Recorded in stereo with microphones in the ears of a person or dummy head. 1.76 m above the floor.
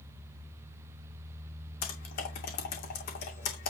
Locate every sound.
1.8 s typing on a keyboard: 50° left (ahead or behind), 2.5 m